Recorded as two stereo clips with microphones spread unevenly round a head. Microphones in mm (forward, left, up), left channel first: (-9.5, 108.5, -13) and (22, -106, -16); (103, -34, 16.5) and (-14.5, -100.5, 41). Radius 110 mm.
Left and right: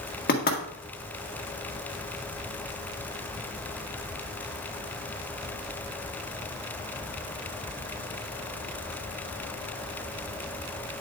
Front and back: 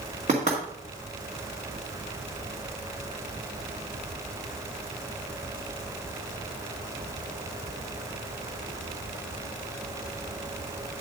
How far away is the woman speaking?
No woman speaking in this recording.